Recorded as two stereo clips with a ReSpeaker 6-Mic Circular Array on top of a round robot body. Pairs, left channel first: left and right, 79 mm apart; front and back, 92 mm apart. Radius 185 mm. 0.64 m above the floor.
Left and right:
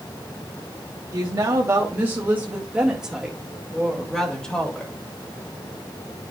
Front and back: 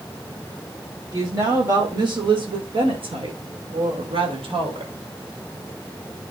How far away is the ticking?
No ticking in this recording.